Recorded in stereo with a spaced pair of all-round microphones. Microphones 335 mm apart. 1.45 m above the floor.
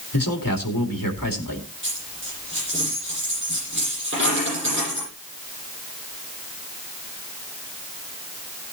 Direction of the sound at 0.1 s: 75° left (ahead or behind).